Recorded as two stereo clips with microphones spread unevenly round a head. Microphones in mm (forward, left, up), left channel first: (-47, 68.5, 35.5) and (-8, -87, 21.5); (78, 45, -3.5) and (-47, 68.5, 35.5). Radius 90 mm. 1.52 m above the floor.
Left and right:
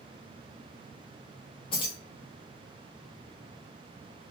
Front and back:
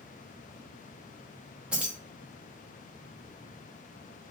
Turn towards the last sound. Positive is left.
turn(degrees=125)